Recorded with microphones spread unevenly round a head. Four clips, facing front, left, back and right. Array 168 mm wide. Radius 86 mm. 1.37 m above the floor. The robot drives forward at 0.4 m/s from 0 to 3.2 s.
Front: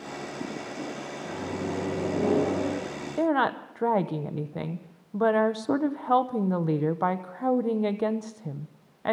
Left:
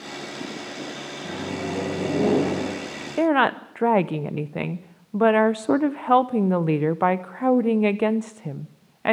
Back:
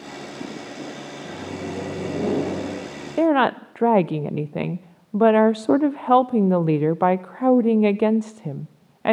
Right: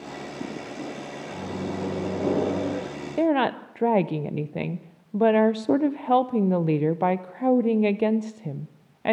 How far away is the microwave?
About 8.5 m.